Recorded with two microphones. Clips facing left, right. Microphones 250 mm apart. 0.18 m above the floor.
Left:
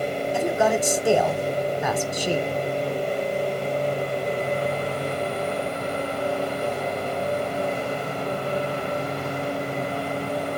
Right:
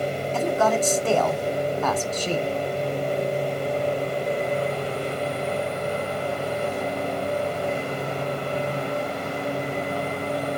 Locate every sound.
0.3 s a man speaking: 10° left (ahead or behind), 1.0 m